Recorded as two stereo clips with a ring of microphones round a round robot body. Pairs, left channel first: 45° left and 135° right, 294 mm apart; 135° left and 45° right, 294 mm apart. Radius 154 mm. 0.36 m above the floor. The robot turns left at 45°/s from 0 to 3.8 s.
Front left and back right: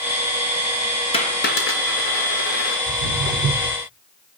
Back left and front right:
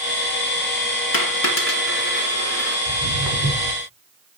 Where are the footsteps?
10° left, 7.5 m; by 3.8 s 35° right, 7.5 m.